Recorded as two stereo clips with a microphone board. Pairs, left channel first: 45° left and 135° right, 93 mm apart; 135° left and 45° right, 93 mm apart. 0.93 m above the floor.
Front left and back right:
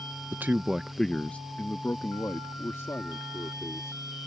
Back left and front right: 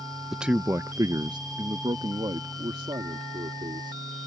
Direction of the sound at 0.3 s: 125° right.